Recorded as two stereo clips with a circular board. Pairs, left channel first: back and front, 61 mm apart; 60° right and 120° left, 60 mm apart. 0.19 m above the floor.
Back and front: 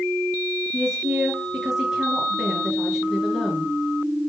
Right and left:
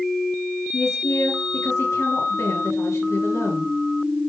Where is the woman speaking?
80° right, 3.5 m.